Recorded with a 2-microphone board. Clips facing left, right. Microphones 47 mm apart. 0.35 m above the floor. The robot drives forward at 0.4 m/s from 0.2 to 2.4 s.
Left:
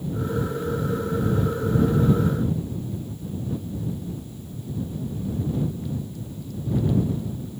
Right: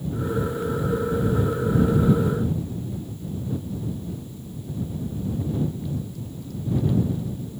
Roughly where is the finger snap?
No finger snap in this recording.